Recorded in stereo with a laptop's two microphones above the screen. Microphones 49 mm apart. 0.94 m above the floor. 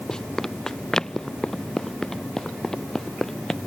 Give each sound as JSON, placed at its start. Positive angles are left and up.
{"t": 0.1, "sound": "running footsteps", "side_deg": 10}